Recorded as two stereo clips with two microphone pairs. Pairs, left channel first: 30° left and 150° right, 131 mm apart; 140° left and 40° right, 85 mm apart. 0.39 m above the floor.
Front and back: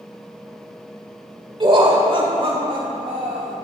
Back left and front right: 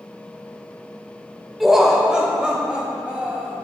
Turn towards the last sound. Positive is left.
turn(degrees=-110)